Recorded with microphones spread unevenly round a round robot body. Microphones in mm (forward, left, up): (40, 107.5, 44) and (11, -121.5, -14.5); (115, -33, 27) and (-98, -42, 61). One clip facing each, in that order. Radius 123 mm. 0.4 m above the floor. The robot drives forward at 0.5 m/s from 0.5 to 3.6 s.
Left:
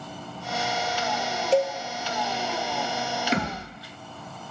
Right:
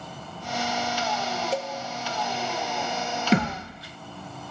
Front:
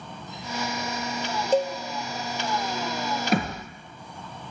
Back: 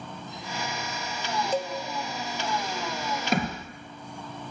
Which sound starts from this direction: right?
A thud, at 3.3 s.